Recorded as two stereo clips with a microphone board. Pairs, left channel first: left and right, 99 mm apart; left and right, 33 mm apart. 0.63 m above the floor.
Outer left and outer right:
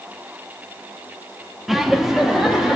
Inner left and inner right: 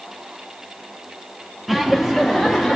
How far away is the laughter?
About 0.7 m.